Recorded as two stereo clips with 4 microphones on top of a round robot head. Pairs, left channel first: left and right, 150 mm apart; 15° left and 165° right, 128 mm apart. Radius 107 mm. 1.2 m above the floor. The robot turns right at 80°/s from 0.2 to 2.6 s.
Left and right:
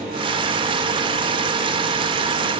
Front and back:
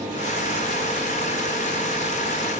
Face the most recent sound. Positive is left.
No sound to turn to.